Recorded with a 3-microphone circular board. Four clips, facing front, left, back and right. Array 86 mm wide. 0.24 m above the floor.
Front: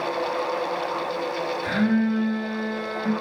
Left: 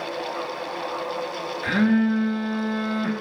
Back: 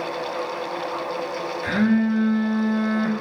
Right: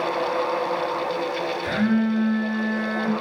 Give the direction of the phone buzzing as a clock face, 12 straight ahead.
8 o'clock.